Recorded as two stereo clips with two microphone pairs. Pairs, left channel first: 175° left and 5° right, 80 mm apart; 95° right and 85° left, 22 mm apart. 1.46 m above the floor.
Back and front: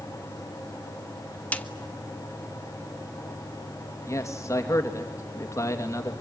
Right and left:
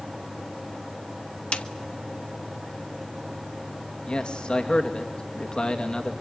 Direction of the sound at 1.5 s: 115° right.